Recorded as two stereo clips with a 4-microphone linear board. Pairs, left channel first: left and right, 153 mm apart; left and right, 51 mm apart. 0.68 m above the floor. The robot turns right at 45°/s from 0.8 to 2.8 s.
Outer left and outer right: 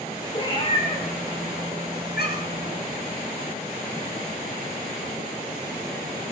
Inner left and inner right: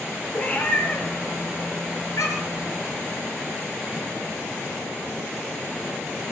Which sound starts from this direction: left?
A cat meowing, at 0.3 s.